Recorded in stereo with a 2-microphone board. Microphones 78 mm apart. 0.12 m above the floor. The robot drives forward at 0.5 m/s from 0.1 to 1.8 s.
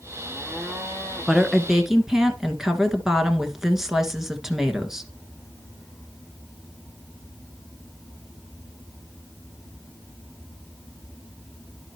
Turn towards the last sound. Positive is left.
turn(degrees=-5)  # may be behind; listen again after turning